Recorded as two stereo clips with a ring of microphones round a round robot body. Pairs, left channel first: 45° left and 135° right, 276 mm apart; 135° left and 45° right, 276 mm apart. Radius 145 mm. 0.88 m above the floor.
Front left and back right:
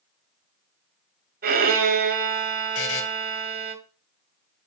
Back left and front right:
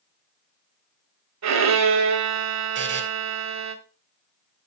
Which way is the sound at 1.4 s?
75° right.